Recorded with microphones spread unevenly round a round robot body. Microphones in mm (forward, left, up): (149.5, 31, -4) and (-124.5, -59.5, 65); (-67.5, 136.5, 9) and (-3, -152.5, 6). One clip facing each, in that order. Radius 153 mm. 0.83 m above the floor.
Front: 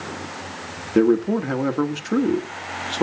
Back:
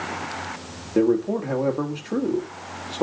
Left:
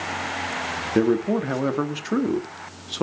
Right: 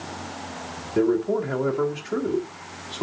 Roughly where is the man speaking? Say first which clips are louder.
Front 3 dB, left 1 dB; left.